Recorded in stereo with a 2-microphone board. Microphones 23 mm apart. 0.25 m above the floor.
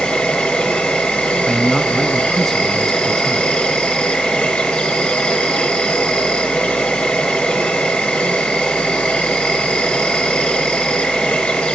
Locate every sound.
0.0 s an insect: 65° left (ahead or behind), 6.5 m
1.5 s a man speaking: 15° left (ahead or behind), 1.9 m